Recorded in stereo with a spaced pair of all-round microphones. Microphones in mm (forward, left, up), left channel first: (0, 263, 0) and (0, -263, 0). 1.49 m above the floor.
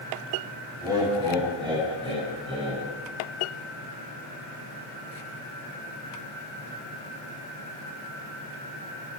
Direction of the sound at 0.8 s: 10° right (ahead or behind).